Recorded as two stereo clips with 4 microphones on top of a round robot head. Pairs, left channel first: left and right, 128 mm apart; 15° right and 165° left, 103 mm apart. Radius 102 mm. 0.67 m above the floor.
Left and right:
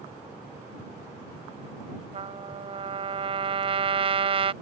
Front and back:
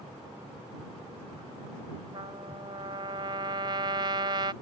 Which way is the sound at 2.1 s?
135° right.